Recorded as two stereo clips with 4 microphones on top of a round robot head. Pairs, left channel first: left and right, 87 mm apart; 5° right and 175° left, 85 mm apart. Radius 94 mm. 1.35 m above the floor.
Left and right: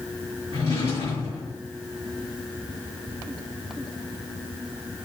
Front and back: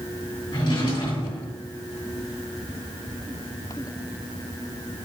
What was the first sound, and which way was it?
A drawer, 25° left.